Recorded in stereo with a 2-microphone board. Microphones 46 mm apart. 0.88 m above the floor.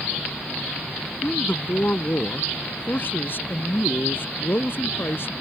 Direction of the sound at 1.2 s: 35° left (ahead or behind).